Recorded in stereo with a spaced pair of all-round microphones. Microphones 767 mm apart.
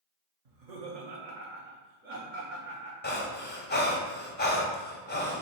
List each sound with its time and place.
0.5 s laughter: 50° right (ahead or behind), 0.9 m; by 2.9 s 70° right (ahead or behind), 2 m
3.0 s breathing: 15° left (ahead or behind), 0.6 m